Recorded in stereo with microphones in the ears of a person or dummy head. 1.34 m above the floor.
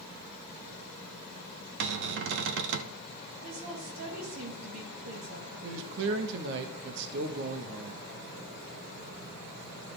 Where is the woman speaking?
70° right (ahead or behind), 2.5 m.